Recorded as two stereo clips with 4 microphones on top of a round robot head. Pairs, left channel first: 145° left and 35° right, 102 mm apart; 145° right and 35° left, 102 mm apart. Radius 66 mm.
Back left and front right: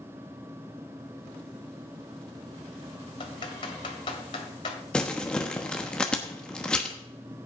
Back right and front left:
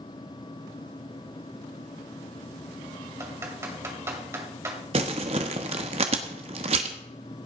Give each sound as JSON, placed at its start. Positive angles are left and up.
{"t": 3.2, "sound": "typing on a keyboard", "azimuth_deg": 100, "distance_m": 1.9}
{"t": 4.9, "sound": "crumpling", "azimuth_deg": 60, "distance_m": 1.0}